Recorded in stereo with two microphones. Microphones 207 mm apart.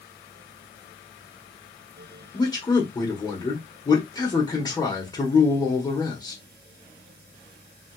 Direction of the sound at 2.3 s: 20° left (ahead or behind).